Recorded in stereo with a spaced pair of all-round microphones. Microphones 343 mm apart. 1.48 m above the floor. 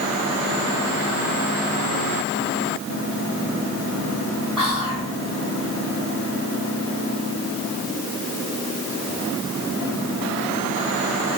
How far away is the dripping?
No dripping in this recording.